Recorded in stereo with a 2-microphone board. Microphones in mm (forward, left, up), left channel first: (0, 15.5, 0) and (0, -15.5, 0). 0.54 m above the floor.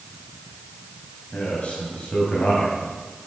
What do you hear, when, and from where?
1.3 s a man speaking: 40° left (ahead or behind), 3.5 m; by 2.8 s 55° left (ahead or behind), 3.5 m